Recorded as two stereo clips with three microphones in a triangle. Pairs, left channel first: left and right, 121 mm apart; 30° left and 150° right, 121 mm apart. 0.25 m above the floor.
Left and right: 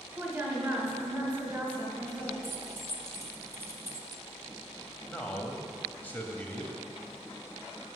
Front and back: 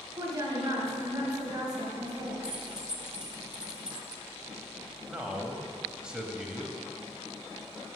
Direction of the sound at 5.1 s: 140° left.